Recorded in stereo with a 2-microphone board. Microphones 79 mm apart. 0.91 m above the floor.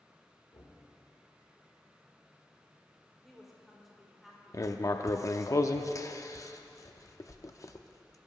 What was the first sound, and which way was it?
Knocking, 60° left (ahead or behind).